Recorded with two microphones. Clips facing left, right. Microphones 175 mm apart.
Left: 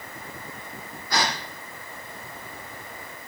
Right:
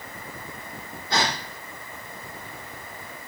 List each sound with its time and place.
1.1 s a gasp: 25° right (ahead or behind), 3 m